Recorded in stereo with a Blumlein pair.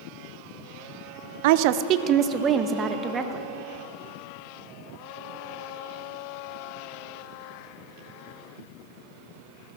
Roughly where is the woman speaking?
Ahead right.